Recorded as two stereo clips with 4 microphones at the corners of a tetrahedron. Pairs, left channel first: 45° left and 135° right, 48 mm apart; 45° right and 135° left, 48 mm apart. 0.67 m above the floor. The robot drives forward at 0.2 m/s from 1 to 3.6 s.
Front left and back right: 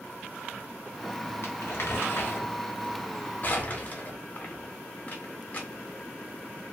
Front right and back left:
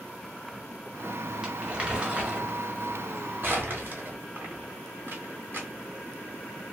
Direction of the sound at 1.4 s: 65° left.